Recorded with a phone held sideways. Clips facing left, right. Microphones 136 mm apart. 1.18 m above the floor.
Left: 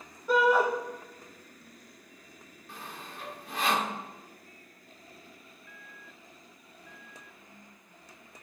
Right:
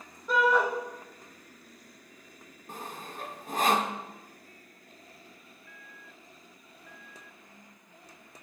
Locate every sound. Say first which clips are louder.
0.3 s a shout: left 2 dB; 10° left (ahead or behind), 3 m
2.7 s sawing: right 4 dB; 45° right (ahead or behind), 1.2 m